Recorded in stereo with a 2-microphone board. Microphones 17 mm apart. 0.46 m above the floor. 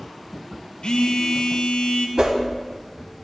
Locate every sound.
0.8 s a phone buzzing: 65° left (ahead or behind), 0.6 m
2.2 s a whoosh: 60° right (ahead or behind), 0.9 m